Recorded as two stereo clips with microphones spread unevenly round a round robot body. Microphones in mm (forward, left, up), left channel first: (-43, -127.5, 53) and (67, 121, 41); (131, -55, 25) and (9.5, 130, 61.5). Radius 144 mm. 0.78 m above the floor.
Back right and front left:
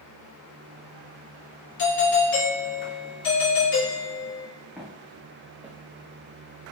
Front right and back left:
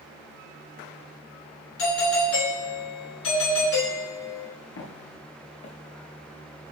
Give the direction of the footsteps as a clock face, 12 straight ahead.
1 o'clock.